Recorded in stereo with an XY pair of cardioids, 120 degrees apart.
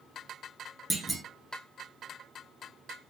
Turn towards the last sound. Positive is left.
turn(degrees=-15)